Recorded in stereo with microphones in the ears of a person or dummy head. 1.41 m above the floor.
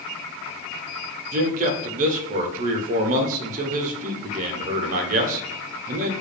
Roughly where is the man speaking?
Right.